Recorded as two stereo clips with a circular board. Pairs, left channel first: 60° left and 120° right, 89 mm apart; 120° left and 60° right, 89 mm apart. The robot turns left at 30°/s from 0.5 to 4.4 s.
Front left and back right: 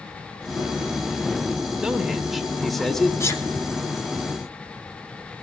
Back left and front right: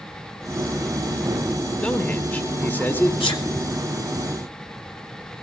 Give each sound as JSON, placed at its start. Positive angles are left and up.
{"t": 1.8, "sound": "a man speaking", "azimuth_deg": 175, "distance_m": 1.4}
{"t": 3.2, "sound": "a sneeze", "azimuth_deg": 120, "distance_m": 3.5}